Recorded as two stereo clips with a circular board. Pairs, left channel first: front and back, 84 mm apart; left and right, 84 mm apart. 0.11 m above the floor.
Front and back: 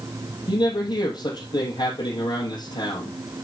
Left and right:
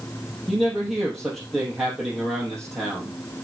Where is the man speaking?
Straight ahead, 2.5 m.